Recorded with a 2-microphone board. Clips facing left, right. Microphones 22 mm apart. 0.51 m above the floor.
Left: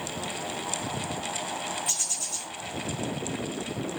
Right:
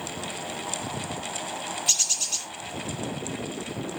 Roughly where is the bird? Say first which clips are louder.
Right 9 dB; right.